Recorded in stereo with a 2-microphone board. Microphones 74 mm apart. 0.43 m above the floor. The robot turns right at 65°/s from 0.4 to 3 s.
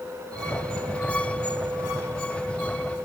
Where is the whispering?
I don't hear whispering.